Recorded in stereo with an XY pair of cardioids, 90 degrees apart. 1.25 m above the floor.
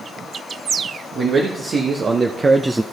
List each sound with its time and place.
1.1 s a man speaking: 60° right, 1.6 m; by 2.8 s 10° right, 0.5 m